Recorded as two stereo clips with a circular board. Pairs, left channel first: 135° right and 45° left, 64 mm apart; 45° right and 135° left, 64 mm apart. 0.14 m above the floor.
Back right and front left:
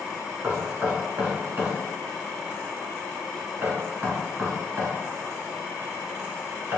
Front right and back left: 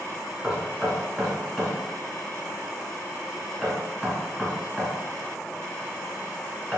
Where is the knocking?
60° left, 0.9 m.